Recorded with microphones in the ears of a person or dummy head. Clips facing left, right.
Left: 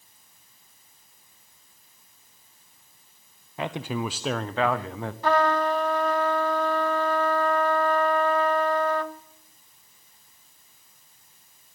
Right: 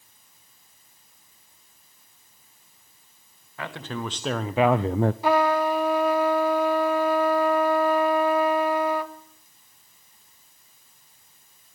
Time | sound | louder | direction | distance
3.6 | a man speaking | left 3 dB | 15° left (ahead or behind) | 1.0 m
5.2 | a trumpet | left 1 dB | 10° right (ahead or behind) | 1.1 m